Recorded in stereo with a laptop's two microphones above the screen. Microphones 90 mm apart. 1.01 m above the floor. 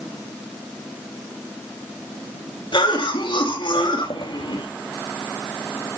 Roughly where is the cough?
Left.